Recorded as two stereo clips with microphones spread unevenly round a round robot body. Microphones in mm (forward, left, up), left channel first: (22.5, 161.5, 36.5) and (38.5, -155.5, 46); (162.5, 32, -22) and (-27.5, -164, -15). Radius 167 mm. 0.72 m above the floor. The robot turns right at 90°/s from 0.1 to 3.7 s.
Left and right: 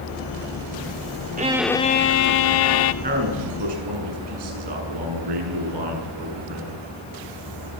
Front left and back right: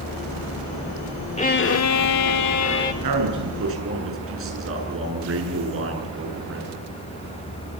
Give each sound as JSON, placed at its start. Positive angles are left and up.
{"t": 1.4, "sound": "a violin", "azimuth_deg": -20, "distance_m": 1.3}
{"t": 3.0, "sound": "a man speaking", "azimuth_deg": -155, "distance_m": 9.0}